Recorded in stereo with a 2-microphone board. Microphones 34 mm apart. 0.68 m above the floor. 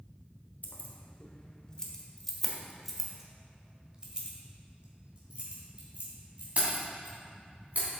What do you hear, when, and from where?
0.6 s keys jangling: 50° left (ahead or behind), 1.2 m; by 7.9 s 45° right (ahead or behind), 3.5 m